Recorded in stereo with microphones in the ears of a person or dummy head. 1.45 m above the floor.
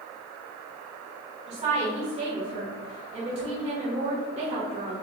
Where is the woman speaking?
35° right (ahead or behind), 1.7 m.